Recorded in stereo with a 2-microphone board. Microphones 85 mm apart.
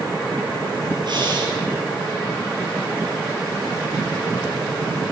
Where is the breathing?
55° right (ahead or behind), 6.5 m.